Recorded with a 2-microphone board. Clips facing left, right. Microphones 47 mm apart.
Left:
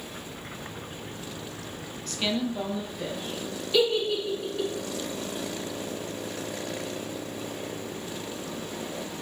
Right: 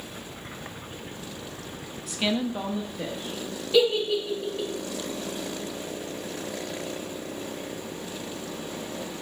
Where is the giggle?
10° right (ahead or behind), 2.5 m.